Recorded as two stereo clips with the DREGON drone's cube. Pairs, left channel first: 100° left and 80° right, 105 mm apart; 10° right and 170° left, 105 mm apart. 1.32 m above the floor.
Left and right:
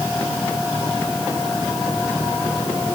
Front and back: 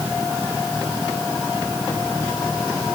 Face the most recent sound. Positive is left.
No sound to turn to.